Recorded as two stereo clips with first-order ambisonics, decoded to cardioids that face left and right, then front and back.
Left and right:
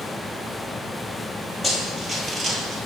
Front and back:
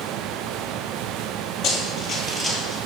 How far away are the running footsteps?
About 1.4 m.